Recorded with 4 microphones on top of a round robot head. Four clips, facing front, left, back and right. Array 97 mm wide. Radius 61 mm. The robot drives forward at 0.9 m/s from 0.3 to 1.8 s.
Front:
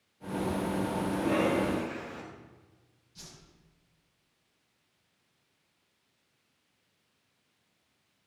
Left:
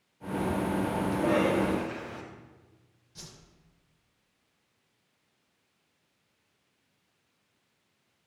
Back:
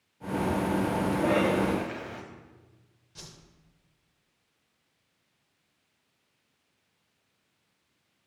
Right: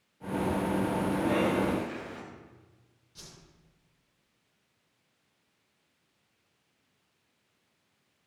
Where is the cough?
160° left, 3 m.